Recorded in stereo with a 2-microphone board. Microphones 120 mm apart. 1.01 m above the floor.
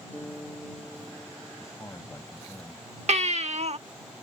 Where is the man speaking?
25° left (ahead or behind).